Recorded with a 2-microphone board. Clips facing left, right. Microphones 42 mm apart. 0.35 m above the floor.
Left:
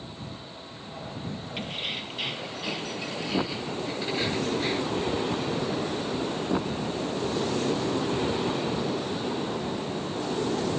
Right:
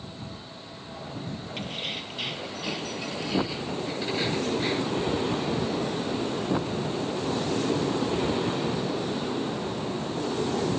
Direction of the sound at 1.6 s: 5° left (ahead or behind).